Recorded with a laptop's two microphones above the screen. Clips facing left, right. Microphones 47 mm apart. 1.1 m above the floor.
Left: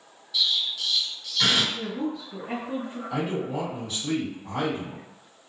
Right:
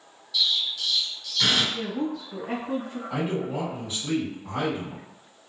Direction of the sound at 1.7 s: 70° right (ahead or behind).